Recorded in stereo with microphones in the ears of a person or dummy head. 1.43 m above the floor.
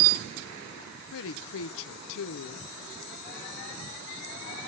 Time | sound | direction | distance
1.1 | a woman speaking | 70° left (ahead or behind) | 0.6 m